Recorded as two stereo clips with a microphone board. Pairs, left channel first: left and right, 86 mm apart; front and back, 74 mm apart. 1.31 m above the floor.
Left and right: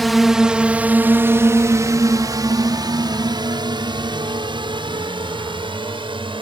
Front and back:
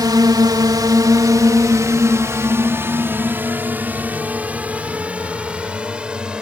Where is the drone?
Straight behind; by 6.4 s 105° right.